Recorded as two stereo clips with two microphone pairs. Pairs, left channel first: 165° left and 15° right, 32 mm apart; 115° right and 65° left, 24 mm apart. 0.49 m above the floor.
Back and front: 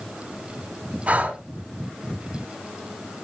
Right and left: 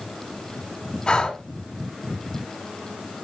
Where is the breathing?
65° right, 2 m.